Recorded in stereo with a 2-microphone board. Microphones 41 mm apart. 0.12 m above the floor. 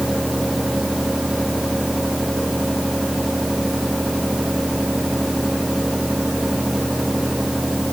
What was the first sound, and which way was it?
Only background noise.